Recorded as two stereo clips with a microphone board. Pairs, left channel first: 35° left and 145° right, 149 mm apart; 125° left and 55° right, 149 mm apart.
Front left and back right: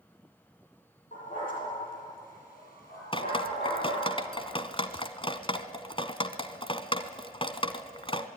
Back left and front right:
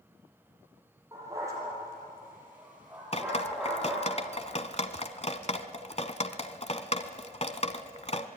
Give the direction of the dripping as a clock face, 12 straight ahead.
9 o'clock.